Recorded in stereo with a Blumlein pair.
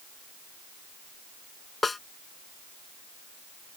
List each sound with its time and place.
1.8 s a snare drum: 10° left